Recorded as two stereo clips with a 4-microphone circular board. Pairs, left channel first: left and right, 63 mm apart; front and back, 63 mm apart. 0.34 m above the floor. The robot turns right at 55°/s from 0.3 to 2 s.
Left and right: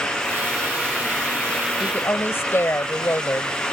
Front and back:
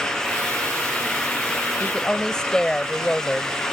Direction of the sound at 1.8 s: 60° left.